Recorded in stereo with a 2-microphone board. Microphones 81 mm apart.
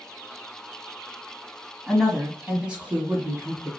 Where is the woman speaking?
Centre (ahead or behind), 1.6 m; by 3.7 s 25° right (ahead or behind), 1.8 m.